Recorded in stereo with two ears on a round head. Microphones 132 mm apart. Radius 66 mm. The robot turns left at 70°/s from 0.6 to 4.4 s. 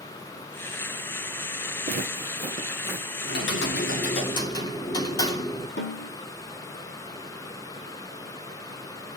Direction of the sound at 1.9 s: 70° right (ahead or behind).